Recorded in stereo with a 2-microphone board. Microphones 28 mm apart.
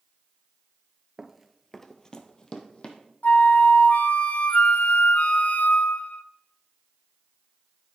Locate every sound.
1.2 s running footsteps: 20° right (ahead or behind), 0.5 m; by 3.0 s 45° left (ahead or behind), 1.4 m
3.2 s a flute: 70° left (ahead or behind), 0.5 m